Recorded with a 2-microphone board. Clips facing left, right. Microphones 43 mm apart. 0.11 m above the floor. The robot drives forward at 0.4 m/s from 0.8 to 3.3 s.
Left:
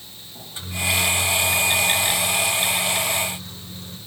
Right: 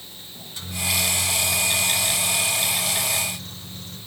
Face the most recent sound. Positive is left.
turn(degrees=10)  # may be behind; listen again after turning